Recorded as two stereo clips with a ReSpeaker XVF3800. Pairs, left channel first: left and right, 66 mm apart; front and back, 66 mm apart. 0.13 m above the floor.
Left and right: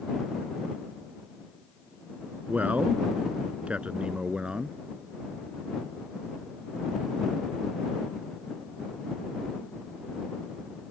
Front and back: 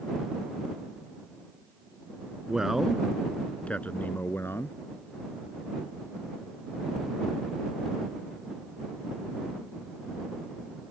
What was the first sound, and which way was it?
A man speaking, 115° right.